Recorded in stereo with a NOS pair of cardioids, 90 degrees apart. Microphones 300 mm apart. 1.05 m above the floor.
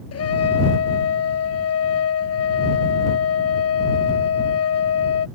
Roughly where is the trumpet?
Ahead left.